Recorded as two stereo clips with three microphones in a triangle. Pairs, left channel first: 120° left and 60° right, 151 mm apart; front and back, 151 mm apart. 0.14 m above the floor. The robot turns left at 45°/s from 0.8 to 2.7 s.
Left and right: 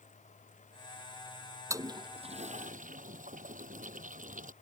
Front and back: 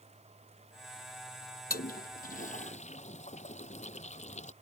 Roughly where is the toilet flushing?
Ahead.